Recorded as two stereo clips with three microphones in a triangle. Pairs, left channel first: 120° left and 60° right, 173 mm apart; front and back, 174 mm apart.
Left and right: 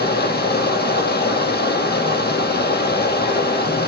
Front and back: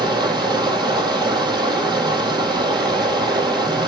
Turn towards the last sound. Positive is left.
turn(degrees=115)